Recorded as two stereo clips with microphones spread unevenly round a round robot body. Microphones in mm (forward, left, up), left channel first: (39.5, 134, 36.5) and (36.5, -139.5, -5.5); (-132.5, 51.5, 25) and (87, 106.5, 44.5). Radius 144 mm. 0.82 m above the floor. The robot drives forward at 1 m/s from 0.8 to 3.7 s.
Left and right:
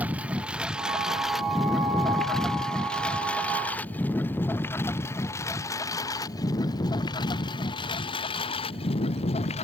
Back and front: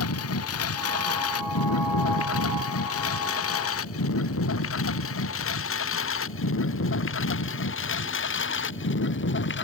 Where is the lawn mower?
175° right; by 9.7 s 160° left.